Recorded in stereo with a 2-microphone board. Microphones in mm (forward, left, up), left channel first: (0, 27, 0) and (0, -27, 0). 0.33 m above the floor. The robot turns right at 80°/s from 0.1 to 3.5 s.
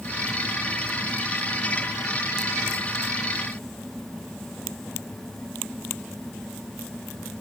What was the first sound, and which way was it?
Only background noise.